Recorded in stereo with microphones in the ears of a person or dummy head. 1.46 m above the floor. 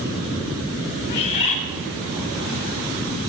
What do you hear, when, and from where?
1.1 s a bird: 35° left (ahead or behind), 4.5 m